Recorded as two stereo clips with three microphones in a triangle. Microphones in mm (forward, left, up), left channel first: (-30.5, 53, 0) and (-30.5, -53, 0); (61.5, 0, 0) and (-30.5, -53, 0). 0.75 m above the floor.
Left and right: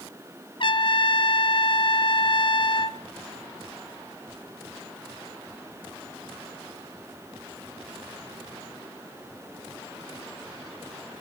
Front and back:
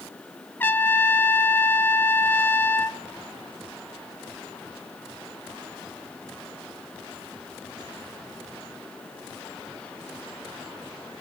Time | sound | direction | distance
0.6 | a trumpet | 95° left | 0.7 m